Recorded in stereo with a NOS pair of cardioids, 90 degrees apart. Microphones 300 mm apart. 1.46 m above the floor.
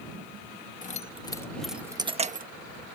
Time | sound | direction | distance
0.8 | keys jangling | 25° left | ?